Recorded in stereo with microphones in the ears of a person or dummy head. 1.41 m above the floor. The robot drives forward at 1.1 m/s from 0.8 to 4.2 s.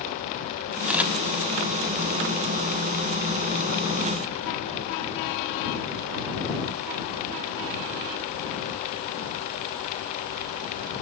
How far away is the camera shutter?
About 1.5 m.